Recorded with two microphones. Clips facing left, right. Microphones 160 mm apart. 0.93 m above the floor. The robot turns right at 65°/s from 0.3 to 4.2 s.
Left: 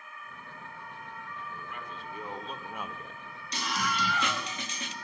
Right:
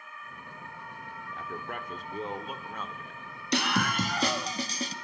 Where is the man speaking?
85° right, 2.5 m; by 3.2 s 40° left, 2.5 m.